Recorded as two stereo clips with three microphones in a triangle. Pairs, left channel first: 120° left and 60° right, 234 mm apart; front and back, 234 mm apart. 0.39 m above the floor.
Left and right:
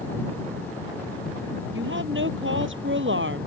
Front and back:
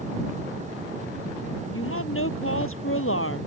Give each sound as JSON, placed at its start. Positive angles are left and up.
{"t": 1.7, "sound": "a woman speaking", "azimuth_deg": -25}